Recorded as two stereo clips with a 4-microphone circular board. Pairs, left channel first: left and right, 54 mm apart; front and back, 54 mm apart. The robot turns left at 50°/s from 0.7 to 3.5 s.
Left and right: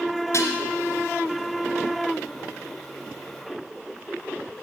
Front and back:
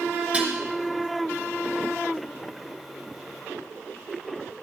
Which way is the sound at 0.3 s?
115° left.